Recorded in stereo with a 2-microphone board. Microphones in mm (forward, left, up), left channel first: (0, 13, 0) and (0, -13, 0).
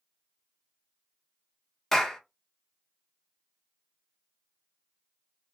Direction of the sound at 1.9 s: 15° left (ahead or behind).